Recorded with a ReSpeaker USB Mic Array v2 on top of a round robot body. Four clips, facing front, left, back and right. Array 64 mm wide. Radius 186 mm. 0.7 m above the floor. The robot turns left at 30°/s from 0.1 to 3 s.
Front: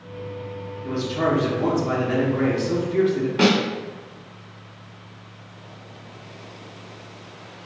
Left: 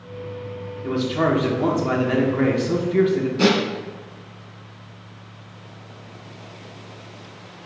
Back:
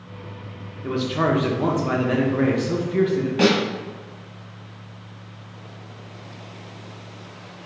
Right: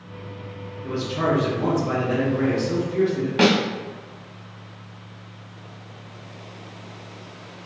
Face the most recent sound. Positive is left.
turn(degrees=-85)